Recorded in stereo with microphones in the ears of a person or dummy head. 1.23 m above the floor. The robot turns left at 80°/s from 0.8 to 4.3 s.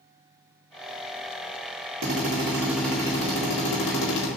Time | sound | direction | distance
2.0 | a drill | 120° right | 1.1 m